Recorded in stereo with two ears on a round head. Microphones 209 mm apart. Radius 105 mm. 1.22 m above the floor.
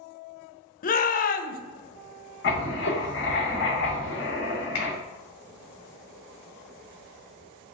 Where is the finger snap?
70° left (ahead or behind), 1.4 m.